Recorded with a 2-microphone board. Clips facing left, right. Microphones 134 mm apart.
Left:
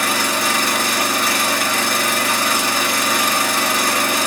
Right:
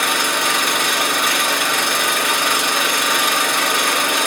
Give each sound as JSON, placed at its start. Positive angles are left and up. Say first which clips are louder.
{"t": 0.0, "sound": "an engine running", "louder": "left 1 dB", "side_deg": 40, "distance_m": 2.5}